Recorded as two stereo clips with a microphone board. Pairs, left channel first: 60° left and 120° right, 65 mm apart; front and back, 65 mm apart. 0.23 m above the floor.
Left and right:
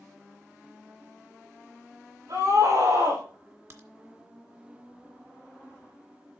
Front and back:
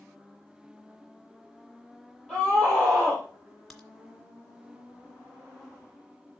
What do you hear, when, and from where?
2.3 s a scream: 105° right, 5 m
3.7 s a crack: 85° right, 1.8 m